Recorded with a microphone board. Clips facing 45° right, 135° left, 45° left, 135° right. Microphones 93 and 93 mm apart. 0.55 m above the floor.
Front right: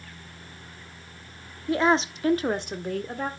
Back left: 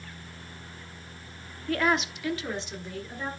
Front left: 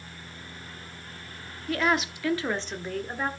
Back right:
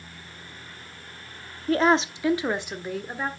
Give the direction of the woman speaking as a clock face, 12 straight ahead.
4 o'clock.